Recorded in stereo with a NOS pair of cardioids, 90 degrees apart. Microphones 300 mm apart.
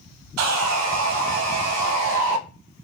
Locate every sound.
0.4 s sawing: 60° right, 0.7 m